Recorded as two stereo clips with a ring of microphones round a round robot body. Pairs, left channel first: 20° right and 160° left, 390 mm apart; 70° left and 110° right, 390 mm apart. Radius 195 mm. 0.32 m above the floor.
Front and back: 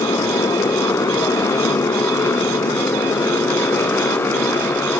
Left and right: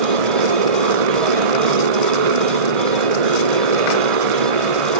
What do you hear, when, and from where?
0.0 s a motorcycle: 105° right